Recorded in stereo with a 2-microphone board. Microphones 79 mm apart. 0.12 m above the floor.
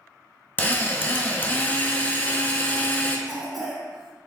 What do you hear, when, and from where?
0.6 s a drill: 25° left (ahead or behind), 0.6 m
3.3 s a cough: centre (ahead or behind), 1.1 m